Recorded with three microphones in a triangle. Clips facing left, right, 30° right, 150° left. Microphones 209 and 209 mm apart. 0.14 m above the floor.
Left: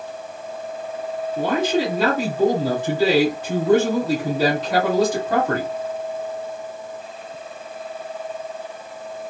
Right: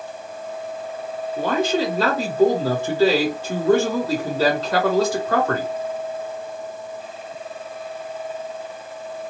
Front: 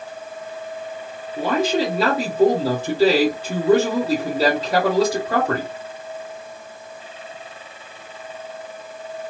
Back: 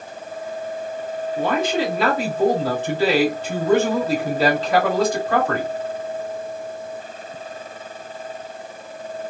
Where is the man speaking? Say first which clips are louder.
Even, front 2 dB; 40° left, 1.8 m.